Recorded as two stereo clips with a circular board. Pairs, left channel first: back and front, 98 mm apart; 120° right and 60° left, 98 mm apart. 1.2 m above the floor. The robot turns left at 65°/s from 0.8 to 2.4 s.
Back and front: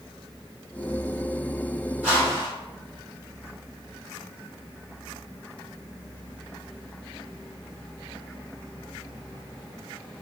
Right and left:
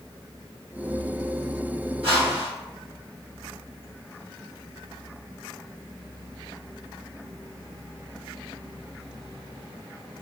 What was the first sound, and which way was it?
A whoosh, 75° left.